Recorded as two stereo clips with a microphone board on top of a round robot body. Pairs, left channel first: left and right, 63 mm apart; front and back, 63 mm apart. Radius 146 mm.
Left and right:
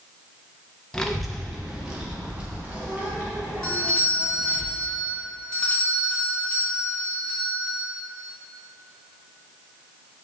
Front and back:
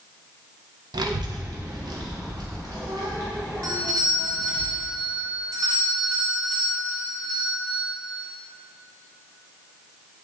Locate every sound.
0.9 s a child speaking: 170° left, 0.8 m; by 4.6 s 155° right, 3.5 m
3.6 s a doorbell: 165° left, 2 m